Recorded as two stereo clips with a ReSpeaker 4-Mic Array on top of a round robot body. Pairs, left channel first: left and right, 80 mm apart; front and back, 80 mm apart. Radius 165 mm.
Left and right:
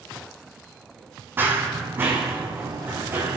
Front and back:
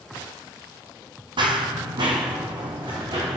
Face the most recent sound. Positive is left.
turn(degrees=-150)